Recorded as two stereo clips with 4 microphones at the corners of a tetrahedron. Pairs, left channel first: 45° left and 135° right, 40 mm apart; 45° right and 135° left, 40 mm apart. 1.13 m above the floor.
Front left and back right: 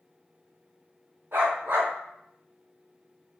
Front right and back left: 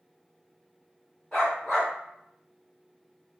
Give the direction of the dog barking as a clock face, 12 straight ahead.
4 o'clock.